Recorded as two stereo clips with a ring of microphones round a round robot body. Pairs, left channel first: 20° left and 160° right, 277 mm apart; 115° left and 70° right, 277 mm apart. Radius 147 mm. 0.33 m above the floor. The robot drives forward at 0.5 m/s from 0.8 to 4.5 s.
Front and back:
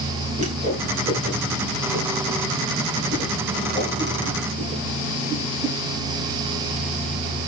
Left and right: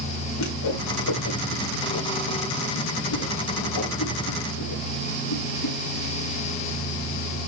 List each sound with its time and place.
0.4 s a whoosh: 140° left, 6 m; by 5.8 s 150° left, 7.5 m